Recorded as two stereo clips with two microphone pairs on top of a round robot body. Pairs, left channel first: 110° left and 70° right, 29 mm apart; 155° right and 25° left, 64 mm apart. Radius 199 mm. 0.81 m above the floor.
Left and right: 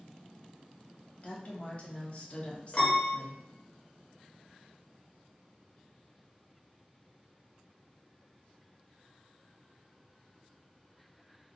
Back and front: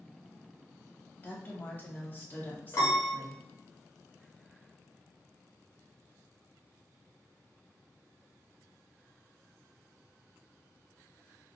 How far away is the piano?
About 0.7 m.